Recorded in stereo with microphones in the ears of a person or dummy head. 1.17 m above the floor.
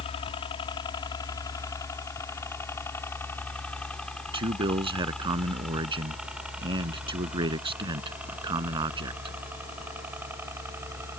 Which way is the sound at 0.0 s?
30° left (ahead or behind).